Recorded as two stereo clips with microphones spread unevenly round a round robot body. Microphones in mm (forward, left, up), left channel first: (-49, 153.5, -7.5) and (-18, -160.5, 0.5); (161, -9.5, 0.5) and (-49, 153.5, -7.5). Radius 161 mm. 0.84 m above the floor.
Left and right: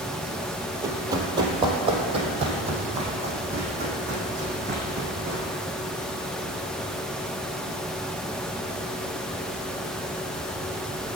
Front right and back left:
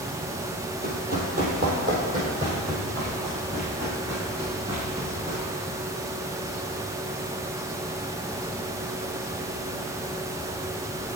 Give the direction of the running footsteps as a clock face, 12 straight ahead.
5 o'clock.